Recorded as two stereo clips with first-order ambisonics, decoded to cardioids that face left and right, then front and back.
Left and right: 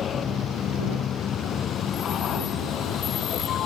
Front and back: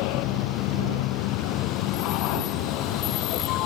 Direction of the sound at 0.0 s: 25° left.